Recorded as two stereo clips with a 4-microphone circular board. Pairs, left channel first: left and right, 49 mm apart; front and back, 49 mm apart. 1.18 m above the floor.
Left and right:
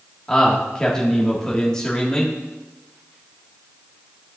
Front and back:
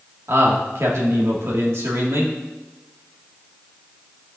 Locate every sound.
0.3 s a man speaking: 165° left, 1.9 m